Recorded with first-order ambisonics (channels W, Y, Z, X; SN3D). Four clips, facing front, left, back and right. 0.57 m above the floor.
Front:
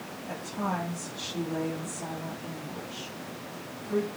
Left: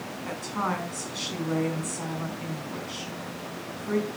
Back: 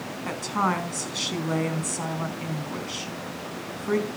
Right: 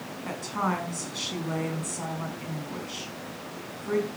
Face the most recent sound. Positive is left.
turn(degrees=-175)